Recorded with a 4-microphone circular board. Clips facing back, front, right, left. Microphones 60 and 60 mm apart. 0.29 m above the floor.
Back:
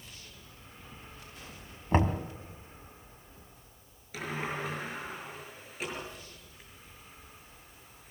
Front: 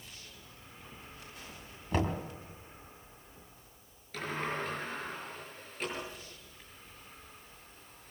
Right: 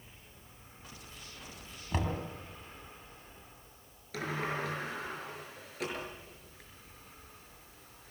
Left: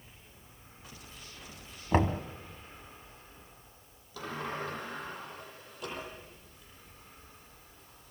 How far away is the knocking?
About 1.8 m.